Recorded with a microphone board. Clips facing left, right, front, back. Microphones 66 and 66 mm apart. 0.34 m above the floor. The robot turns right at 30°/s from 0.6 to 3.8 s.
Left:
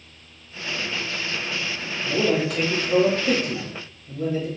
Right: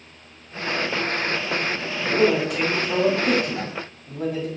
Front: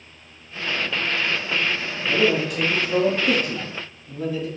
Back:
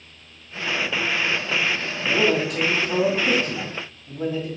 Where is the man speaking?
175° right, 1.9 m; by 4.5 s 125° right, 1.9 m.